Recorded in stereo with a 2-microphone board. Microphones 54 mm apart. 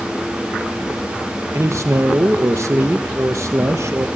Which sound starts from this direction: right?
A man speaking, at 1.5 s.